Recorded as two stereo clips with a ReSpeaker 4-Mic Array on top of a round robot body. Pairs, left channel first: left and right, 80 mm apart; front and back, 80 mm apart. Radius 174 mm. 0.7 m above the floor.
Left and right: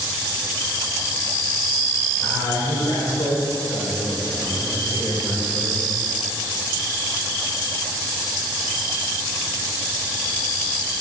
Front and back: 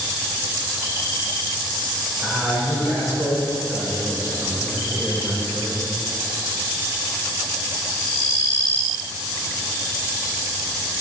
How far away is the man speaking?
About 3 m.